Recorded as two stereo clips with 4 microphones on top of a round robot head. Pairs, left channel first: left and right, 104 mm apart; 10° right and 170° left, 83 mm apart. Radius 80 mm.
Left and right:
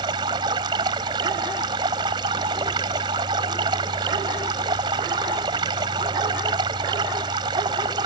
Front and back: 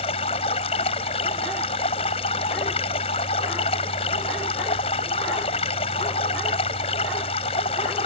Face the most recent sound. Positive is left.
turn(degrees=-30)